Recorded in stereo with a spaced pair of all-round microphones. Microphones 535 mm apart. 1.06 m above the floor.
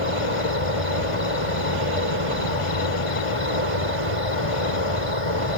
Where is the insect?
75° left (ahead or behind).